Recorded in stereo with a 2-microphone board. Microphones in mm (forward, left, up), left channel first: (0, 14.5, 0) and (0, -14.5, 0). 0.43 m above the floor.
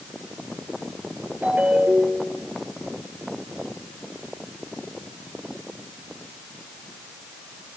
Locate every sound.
1.4 s a ringtone: 60° right (ahead or behind), 6.5 m